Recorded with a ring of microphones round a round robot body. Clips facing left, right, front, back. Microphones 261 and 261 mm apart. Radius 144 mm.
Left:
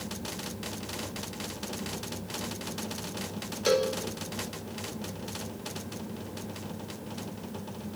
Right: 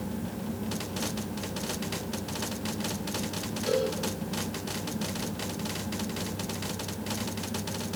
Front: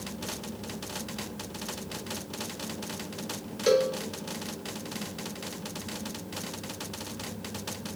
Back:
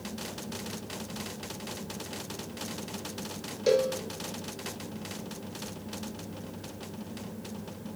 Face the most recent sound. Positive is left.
turn(degrees=70)